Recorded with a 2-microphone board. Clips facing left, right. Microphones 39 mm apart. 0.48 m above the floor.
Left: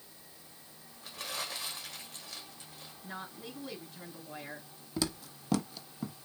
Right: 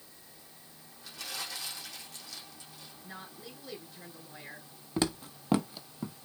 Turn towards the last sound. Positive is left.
turn(degrees=0)  # may be behind; listen again after turning